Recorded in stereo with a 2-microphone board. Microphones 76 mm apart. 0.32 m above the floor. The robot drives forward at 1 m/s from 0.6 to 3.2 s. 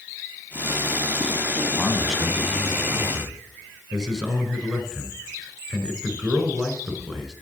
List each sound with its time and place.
1.8 s a man speaking: 5° right (ahead or behind), 2 m; by 7.3 s centre (ahead or behind), 3.5 m